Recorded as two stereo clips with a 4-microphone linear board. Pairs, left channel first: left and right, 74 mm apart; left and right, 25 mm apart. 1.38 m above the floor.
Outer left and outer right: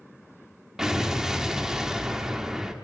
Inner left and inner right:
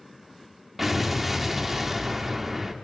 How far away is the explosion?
About 1.1 m.